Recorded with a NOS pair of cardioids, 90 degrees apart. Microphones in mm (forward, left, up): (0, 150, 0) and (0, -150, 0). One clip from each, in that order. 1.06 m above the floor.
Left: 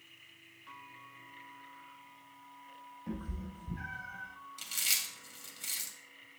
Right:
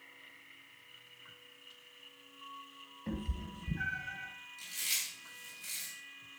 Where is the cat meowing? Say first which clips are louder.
Right 2 dB; 35° right, 3 m; by 4.3 s 20° right, 2.5 m.